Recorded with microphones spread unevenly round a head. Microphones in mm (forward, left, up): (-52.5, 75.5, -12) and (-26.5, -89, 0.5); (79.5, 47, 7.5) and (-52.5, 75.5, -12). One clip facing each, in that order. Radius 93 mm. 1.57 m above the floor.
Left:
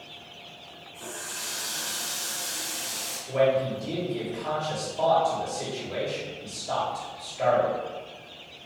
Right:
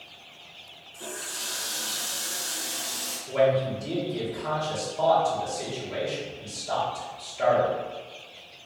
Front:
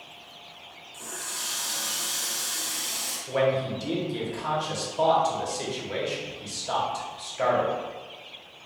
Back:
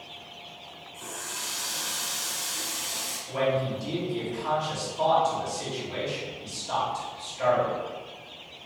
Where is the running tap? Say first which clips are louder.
Right 2 dB, even; 25° right, 1.9 m.